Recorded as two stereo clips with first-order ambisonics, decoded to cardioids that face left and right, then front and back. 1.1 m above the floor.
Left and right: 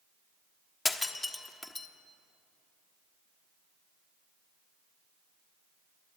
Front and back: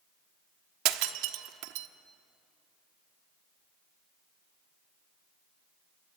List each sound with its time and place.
0.8 s breaking glass: 170° left, 1.1 m